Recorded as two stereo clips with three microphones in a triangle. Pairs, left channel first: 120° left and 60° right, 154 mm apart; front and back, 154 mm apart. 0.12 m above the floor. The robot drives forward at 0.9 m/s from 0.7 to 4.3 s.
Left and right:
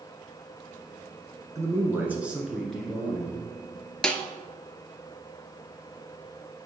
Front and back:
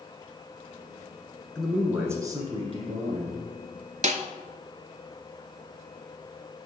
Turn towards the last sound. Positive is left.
turn(degrees=-165)